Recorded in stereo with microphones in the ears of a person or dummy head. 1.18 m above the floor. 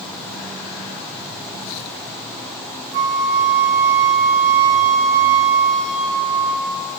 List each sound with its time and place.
2.9 s a flute: 45° right (ahead or behind), 3 m